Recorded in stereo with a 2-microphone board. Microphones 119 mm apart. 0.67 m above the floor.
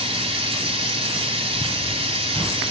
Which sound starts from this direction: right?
Running water, at 0.0 s.